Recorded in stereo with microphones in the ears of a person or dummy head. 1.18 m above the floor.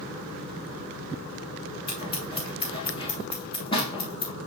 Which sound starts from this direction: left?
Scissors, at 1.9 s.